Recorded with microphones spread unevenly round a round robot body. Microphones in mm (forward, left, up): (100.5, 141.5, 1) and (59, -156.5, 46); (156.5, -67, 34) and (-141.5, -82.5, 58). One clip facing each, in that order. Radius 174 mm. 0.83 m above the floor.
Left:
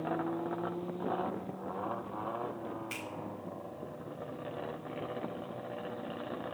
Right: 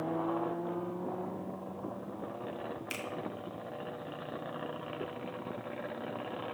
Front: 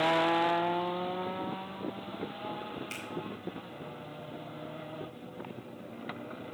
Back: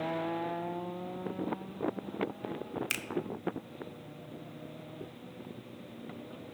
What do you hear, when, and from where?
2.9 s a finger snap: 170° right, 0.9 m